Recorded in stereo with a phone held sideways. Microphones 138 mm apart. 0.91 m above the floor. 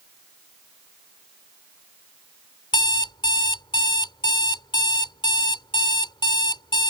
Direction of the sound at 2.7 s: 35° left (ahead or behind).